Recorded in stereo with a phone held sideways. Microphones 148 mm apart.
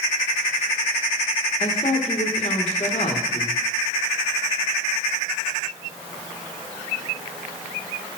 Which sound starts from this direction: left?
A woman speaking, at 1.6 s.